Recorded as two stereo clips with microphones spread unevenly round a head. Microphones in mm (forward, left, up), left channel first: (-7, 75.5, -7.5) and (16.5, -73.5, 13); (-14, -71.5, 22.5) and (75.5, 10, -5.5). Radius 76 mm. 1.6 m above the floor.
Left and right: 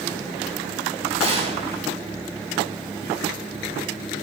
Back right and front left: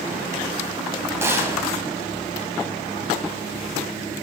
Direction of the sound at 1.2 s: 30° right.